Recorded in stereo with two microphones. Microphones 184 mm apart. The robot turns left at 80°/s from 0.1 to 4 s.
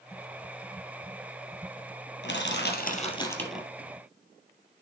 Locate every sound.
2.2 s crushing: 105° left, 2 m; by 3.7 s 10° right, 2 m